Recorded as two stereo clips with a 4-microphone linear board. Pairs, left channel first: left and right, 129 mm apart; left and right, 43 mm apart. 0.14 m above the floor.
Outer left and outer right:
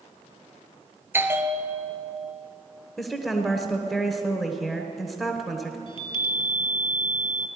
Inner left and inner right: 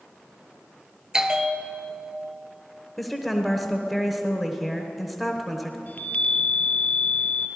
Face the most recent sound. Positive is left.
turn(degrees=45)  # may be behind; listen again after turning